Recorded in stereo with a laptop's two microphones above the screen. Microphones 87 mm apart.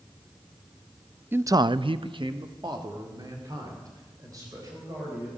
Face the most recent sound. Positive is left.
turn(degrees=-40)  # may be behind; listen again after turning